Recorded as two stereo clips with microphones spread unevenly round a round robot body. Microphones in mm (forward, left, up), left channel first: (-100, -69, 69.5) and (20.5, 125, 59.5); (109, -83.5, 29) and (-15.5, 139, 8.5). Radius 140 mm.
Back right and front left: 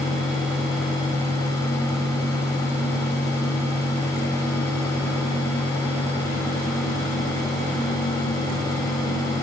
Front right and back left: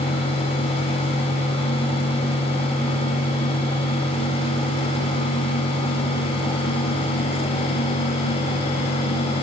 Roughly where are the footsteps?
No footsteps in this recording.